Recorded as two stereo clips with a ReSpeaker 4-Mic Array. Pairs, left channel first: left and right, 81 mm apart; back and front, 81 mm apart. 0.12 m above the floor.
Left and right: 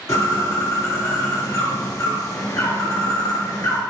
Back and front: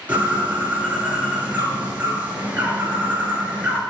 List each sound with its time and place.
0.1 s a bird: 65° left, 2.5 m